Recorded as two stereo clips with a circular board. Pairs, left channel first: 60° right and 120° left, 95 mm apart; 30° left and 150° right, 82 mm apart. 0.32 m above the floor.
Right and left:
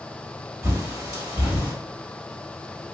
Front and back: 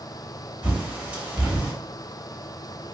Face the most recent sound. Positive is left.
turn(degrees=155)